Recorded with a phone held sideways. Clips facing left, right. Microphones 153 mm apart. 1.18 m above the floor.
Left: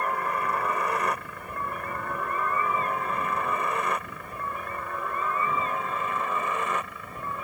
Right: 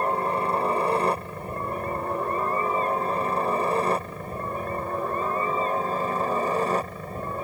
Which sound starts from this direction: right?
A helicopter, at 0.0 s.